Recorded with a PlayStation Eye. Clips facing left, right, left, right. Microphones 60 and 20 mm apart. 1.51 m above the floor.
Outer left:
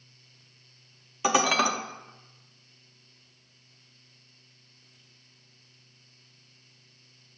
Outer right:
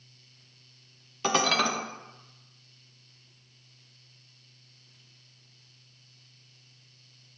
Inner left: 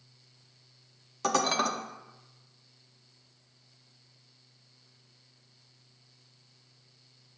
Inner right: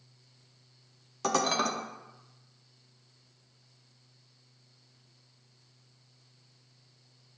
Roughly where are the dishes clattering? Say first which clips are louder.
Outer left 2 dB, inner left 1 dB; centre.